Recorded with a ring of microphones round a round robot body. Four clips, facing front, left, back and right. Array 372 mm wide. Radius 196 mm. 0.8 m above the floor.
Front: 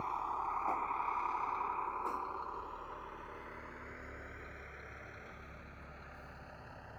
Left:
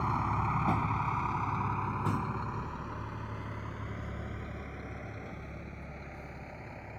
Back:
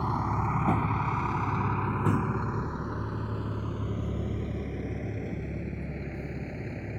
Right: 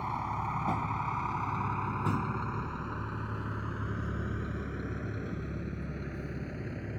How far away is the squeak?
I don't hear a squeak.